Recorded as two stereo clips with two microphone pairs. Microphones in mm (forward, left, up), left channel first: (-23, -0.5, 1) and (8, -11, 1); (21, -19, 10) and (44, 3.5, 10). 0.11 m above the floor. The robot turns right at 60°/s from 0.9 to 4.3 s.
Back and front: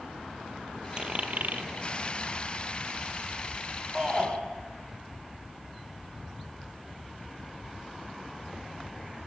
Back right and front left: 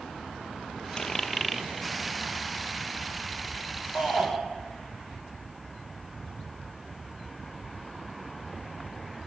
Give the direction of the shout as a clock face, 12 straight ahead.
3 o'clock.